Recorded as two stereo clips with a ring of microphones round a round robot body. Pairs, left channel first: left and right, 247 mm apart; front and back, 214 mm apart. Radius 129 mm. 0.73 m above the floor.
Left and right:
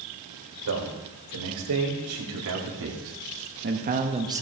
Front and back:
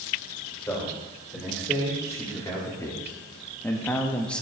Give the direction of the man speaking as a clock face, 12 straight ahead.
3 o'clock.